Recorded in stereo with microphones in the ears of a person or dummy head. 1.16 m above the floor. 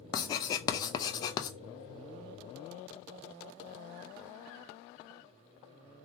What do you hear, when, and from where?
0.1 s writing: 30° left (ahead or behind), 0.5 m